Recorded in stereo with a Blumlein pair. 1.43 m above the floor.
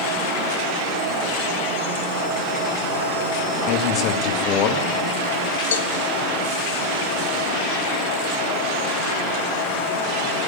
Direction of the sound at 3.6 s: 35° left.